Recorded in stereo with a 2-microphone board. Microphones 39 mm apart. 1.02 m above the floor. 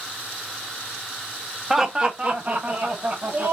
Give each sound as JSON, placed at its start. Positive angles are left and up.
{"t": 1.7, "sound": "laughter", "side_deg": -5, "distance_m": 0.9}